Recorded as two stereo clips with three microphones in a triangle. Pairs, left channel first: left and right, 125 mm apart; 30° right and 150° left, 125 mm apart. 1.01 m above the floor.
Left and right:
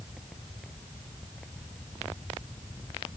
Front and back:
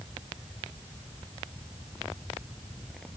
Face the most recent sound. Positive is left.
No sound to turn to.